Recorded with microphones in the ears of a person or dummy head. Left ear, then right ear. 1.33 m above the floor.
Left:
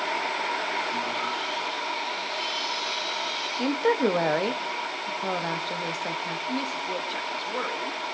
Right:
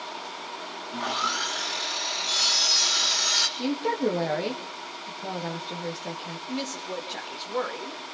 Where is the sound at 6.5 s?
Centre (ahead or behind), 1.9 m.